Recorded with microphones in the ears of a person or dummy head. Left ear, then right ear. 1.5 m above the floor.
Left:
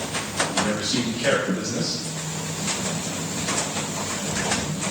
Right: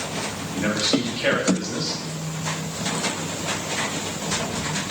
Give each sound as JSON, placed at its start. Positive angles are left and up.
{"t": 0.5, "sound": "a man speaking", "side_deg": -35, "distance_m": 3.5}